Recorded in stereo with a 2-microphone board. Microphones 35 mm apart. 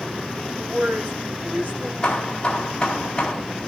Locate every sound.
0.6 s a woman speaking: 50° right (ahead or behind), 3 m
2.0 s hammering: 25° left (ahead or behind), 3.5 m